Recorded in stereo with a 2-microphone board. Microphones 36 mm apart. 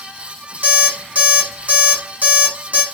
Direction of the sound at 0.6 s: 50° right (ahead or behind).